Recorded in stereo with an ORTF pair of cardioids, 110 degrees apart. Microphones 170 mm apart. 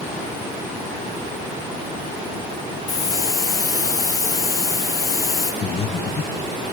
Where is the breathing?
40° left, 1.7 m.